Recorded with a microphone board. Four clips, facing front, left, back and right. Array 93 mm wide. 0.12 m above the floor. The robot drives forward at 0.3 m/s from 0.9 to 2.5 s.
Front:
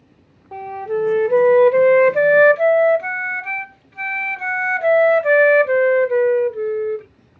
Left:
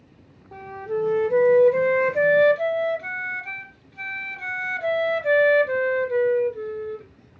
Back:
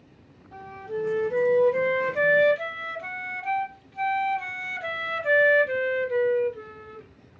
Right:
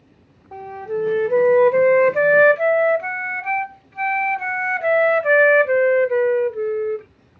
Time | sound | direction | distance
0.5 | a flute | 20° right | 0.9 m